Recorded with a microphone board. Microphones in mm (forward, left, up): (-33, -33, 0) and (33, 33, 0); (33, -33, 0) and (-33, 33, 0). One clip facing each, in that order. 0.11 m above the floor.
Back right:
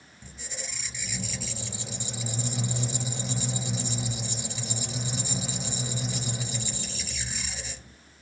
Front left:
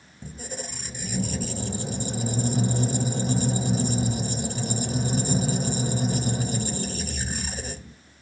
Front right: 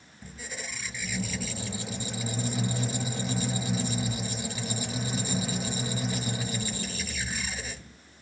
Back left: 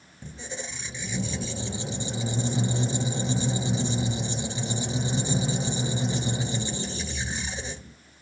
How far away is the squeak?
About 0.7 m.